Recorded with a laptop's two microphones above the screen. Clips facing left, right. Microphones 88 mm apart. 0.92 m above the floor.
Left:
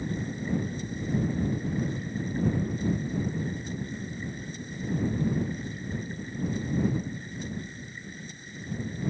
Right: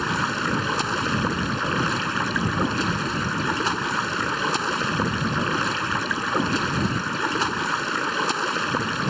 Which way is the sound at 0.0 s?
85° right.